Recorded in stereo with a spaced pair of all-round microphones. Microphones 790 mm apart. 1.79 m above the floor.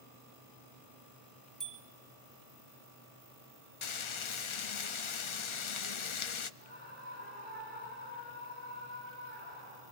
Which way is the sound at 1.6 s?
Centre (ahead or behind).